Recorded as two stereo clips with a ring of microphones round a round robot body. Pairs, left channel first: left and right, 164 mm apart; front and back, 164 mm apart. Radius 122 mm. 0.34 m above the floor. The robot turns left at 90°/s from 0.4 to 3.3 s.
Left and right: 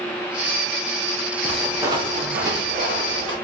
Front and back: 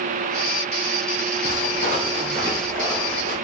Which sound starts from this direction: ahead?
Footsteps, at 1.4 s.